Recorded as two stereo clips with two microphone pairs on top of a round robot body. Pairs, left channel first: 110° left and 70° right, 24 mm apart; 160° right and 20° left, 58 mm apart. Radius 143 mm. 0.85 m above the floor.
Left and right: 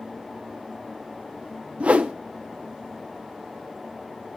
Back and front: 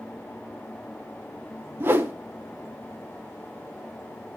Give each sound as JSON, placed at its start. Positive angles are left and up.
{"t": 1.8, "sound": "a whoosh", "azimuth_deg": -35, "distance_m": 0.6}